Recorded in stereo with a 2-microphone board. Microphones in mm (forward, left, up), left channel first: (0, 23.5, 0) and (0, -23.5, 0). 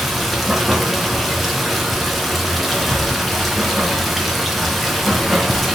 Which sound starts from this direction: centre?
Running water, at 0.0 s.